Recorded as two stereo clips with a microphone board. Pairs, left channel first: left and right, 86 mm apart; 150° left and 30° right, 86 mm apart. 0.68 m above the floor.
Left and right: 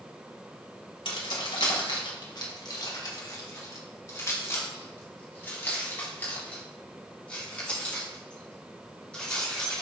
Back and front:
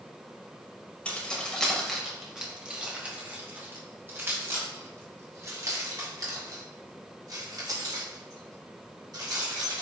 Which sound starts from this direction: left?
Keys jangling, at 1.1 s.